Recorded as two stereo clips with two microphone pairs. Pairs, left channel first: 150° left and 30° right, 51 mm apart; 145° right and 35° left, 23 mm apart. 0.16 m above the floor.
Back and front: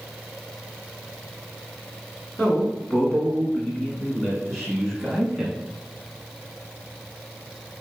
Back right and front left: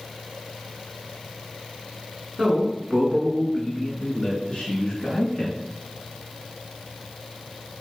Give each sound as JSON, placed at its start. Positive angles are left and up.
{"t": 2.4, "sound": "a man speaking", "azimuth_deg": 135, "distance_m": 1.3}